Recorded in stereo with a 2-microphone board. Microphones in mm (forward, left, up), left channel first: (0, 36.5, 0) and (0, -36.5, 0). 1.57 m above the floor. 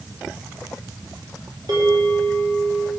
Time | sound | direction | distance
1.7 | a bell | 65° right (ahead or behind) | 6.5 m